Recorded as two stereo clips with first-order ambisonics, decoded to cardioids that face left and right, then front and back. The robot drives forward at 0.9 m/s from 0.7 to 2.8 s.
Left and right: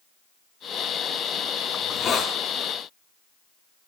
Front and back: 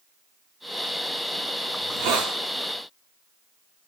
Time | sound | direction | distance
1.8 | a hiss | 155° left | 2.5 m